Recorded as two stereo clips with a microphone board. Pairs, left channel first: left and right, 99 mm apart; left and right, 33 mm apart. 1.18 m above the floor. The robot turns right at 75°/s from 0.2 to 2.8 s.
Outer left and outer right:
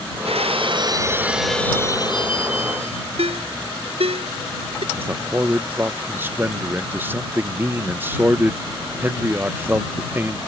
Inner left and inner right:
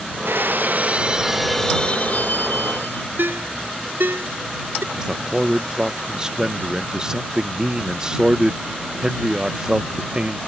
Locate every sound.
0.2 s breaking glass: 90° right; by 3.1 s 100° left
3.2 s a ringtone: 85° right
4.9 s a man speaking: 20° right (ahead or behind)